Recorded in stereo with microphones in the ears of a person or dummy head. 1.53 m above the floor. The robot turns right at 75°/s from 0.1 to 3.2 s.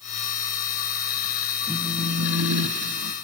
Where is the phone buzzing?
175° left, 1.9 m; by 3.1 s 75° right, 1.9 m.